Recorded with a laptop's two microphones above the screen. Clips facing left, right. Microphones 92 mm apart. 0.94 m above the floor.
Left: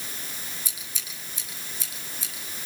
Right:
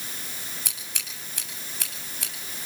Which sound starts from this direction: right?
Scissors, at 0.7 s.